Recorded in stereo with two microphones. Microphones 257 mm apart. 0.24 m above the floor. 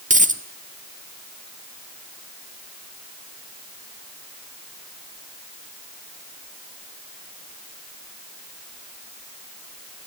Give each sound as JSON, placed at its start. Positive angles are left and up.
{"t": 0.1, "sound": "a dropped coin", "side_deg": -30, "distance_m": 1.2}